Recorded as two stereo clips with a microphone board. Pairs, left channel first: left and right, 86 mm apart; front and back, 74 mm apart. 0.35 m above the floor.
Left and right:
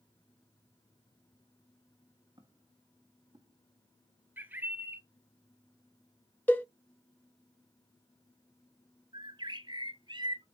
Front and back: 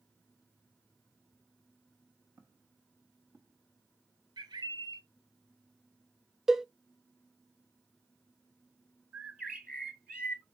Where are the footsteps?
125° right, 3.5 m; by 3.6 s 120° right, 3 m.